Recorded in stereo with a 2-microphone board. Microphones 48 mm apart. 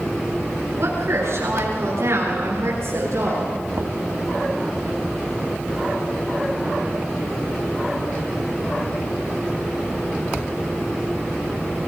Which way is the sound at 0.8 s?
70° right (ahead or behind).